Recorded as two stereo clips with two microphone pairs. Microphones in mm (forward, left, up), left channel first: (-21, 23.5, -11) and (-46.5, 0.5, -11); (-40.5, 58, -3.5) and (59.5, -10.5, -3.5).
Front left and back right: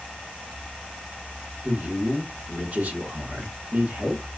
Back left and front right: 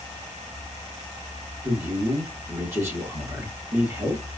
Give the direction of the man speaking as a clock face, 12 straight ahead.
3 o'clock.